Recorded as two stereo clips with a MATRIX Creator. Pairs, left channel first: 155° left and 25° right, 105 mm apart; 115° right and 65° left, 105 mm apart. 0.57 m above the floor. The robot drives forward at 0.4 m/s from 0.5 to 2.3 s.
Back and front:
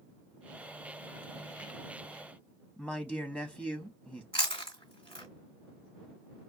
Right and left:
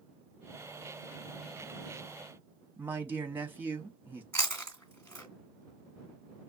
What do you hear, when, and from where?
2.8 s a man speaking: 100° left, 0.7 m
4.3 s chewing: straight behind, 2 m